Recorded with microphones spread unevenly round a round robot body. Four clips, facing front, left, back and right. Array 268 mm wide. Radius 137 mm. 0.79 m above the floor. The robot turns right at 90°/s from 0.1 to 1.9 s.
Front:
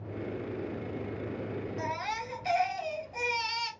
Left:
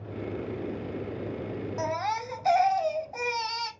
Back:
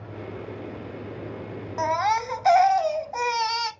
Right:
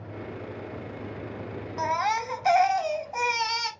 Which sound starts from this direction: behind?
A baby crying, at 1.8 s.